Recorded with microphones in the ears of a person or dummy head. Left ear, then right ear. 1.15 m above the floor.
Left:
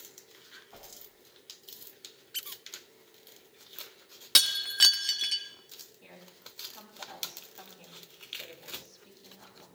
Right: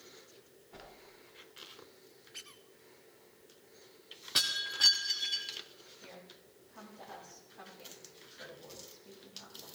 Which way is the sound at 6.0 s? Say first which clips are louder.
Left 1 dB; 85° left.